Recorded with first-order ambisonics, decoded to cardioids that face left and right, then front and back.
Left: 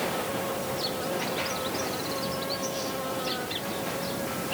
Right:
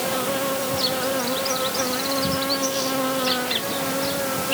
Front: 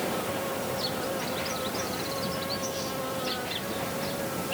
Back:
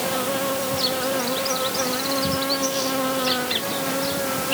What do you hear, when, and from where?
0.0 s an insect: 135° right